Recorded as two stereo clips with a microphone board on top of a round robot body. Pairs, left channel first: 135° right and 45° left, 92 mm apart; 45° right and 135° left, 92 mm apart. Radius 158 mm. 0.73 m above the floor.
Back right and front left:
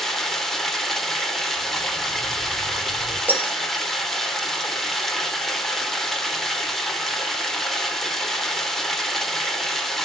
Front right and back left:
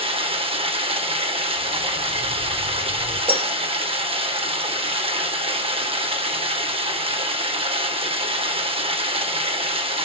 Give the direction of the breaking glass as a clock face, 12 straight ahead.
8 o'clock.